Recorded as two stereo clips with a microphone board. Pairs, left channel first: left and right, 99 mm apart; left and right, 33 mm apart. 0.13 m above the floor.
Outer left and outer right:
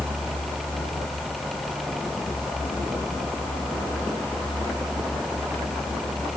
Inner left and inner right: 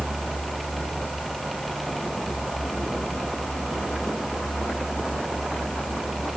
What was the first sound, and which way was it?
Only background noise.